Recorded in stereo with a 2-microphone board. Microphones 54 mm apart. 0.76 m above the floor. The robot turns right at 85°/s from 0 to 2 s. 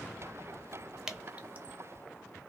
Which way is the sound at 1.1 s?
10° right (ahead or behind).